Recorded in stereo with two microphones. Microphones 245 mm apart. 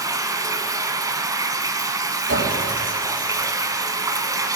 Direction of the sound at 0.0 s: 15° right (ahead or behind).